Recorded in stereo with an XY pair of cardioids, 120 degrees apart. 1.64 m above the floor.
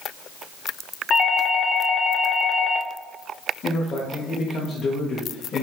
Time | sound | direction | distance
1.1 | a doorbell | 40° left | 0.5 m
3.6 | a man speaking | 45° left | 0.7 m